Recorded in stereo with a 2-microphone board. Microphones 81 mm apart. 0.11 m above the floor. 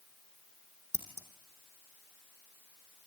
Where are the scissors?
35° right (ahead or behind), 3 m.